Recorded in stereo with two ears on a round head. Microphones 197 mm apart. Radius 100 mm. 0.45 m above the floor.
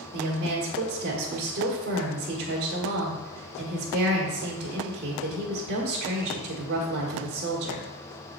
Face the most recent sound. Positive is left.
turn(degrees=-45)  # may be behind; listen again after turning